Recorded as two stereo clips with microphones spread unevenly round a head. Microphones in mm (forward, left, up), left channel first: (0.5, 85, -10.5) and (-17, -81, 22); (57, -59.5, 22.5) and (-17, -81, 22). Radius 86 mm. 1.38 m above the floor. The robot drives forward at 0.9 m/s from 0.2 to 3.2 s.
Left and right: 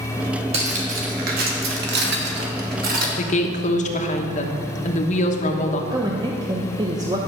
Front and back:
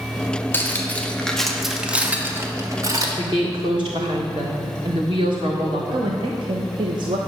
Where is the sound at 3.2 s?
135° left, 1.1 m.